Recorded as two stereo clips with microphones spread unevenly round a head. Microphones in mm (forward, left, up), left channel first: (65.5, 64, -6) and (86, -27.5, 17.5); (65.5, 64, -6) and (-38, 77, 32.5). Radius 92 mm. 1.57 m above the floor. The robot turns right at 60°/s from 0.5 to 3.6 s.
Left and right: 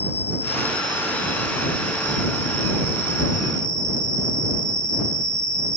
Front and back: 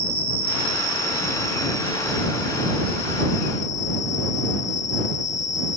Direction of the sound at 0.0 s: 150° left.